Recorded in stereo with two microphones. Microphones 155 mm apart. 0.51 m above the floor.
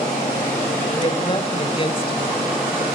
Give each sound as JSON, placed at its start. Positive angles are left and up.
{"t": 0.9, "sound": "a woman speaking", "side_deg": 35, "distance_m": 2.5}